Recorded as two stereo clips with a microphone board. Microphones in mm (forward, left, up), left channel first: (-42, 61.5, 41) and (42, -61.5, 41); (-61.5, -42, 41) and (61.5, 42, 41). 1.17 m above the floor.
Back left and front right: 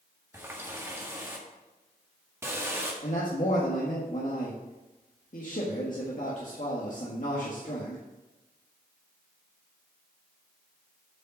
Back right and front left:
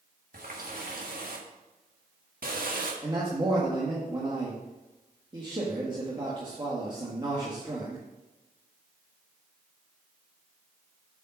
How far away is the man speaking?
About 1.6 m.